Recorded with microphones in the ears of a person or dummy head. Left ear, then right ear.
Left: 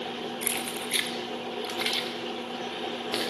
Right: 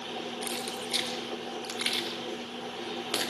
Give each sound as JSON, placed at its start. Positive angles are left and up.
{"t": 0.4, "sound": "keys jangling", "side_deg": 40, "distance_m": 2.0}